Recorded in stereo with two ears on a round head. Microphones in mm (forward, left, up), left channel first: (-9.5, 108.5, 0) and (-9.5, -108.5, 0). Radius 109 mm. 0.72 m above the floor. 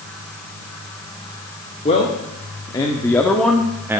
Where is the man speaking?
25° left (ahead or behind), 2 m; by 4.0 s 10° right (ahead or behind), 1.2 m.